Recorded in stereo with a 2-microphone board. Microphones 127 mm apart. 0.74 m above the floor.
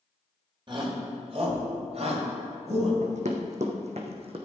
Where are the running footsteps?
70° right (ahead or behind), 1.9 m; by 4.4 s 50° right (ahead or behind), 2.0 m.